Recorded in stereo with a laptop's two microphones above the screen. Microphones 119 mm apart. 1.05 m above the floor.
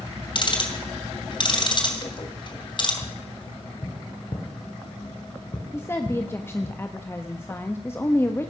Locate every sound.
0.3 s ticking: 45° left (ahead or behind), 2.5 m
3.0 s tapping: 45° left (ahead or behind), 2.5 m
5.7 s a woman speaking: 20° left (ahead or behind), 1.1 m